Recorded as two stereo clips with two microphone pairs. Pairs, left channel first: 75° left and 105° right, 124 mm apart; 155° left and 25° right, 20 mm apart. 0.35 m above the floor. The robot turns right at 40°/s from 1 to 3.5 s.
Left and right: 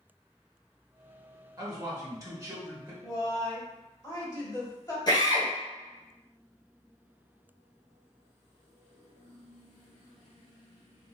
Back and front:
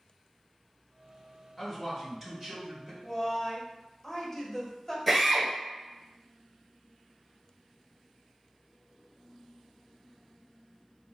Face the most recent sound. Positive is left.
turn(degrees=50)